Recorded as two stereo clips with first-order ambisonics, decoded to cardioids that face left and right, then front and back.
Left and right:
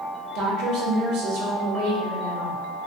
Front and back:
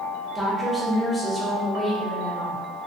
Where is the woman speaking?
85° right, 1.0 m.